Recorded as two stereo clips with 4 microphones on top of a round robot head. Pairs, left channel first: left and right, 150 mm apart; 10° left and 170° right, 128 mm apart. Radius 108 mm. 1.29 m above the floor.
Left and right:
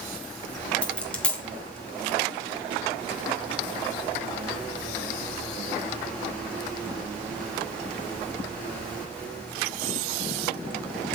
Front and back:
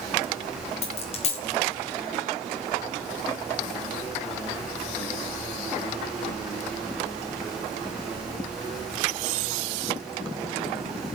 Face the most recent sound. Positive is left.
turn(degrees=10)